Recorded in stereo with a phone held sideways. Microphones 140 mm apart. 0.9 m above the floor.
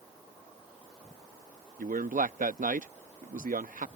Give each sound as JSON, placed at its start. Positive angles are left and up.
{"t": 1.8, "sound": "a man speaking", "side_deg": -70}